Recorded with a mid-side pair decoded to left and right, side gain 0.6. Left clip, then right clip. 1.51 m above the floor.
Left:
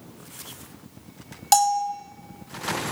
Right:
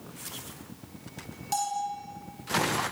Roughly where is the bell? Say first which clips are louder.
Left 10 dB; ahead left.